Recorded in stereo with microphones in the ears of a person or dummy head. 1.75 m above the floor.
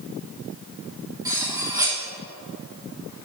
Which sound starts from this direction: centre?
Cutlery clinking, at 1.2 s.